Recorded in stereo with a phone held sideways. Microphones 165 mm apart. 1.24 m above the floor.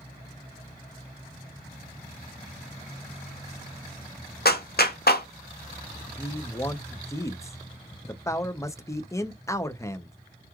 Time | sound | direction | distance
4.5 | a clap | 70° left (ahead or behind) | 0.7 m
6.2 | a man speaking | 15° left (ahead or behind) | 0.5 m